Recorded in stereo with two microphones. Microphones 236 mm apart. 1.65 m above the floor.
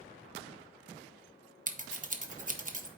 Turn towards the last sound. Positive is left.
turn(degrees=-35)  # may be behind; listen again after turning